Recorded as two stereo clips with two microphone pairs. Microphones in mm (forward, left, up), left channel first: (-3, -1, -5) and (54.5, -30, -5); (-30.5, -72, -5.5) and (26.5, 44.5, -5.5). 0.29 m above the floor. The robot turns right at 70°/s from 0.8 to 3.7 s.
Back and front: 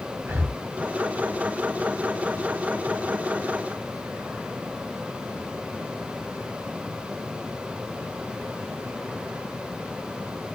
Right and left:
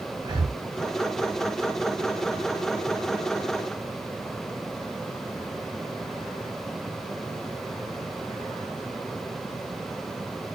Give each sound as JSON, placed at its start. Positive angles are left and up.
{"t": 0.2, "sound": "breathing", "azimuth_deg": 15, "distance_m": 0.9}